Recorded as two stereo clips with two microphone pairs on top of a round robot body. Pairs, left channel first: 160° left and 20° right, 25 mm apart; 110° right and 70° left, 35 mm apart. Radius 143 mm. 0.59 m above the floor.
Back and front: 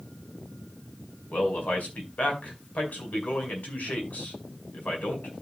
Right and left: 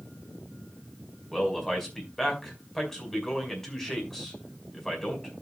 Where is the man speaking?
175° left, 4.5 m.